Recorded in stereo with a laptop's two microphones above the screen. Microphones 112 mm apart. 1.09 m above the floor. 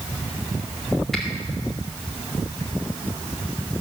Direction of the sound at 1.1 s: 5° left (ahead or behind).